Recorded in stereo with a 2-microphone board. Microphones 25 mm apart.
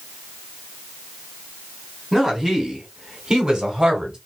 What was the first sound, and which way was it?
A woman speaking, 15° right (ahead or behind).